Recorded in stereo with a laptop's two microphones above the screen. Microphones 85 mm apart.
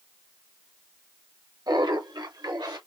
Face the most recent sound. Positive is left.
turn(degrees=-55)  # may be behind; listen again after turning